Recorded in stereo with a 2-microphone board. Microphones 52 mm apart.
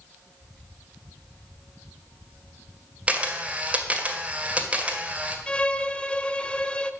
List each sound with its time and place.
3.1 s a camera shutter: 25° right (ahead or behind), 1.6 m
5.5 s a violin: 20° left (ahead or behind), 0.7 m